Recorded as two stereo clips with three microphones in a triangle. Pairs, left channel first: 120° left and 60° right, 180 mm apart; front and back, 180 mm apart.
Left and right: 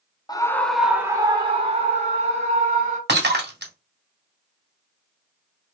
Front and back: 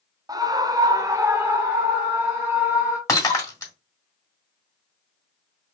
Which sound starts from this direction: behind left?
A scream, at 0.3 s.